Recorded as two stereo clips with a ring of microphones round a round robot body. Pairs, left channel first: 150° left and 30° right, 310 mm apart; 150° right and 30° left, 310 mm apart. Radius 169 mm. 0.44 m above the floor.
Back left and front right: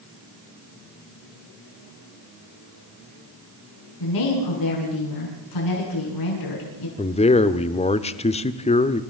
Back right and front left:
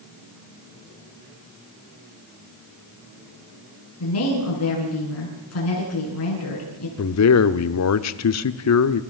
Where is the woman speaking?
165° left, 7.5 m.